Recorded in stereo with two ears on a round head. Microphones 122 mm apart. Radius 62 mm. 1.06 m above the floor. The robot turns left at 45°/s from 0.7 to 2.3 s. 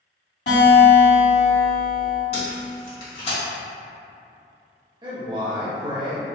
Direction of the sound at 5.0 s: 35° right (ahead or behind).